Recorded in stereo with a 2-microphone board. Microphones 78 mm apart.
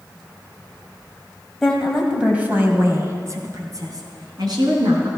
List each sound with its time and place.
1.6 s a woman speaking: 5° left (ahead or behind), 1.7 m; by 5.1 s 65° right (ahead or behind), 4 m